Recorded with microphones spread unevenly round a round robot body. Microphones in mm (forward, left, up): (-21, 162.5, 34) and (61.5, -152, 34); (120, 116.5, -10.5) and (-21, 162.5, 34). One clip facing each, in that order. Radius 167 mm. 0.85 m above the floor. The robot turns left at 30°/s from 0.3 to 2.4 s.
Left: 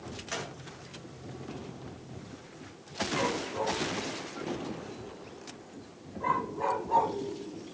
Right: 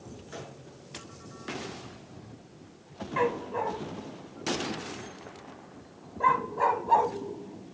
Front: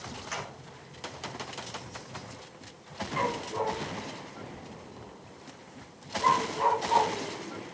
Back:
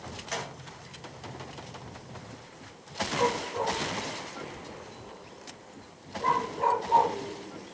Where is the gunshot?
105° left, 4 m; by 0.6 s 95° left, 4 m.